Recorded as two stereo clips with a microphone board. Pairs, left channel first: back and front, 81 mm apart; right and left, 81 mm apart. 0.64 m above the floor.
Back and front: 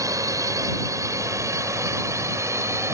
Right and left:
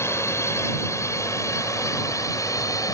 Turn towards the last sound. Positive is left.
turn(degrees=-50)